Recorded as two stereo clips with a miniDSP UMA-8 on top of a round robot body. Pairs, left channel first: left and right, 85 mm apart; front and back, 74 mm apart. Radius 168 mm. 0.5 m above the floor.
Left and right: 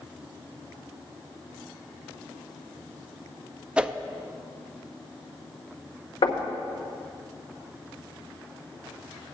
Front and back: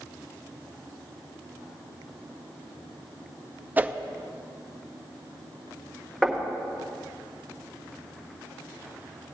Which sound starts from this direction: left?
Knocking, at 6.2 s.